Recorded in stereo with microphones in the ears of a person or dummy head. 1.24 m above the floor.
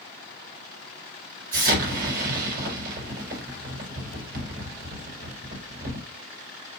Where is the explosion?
50° right (ahead or behind), 4 m.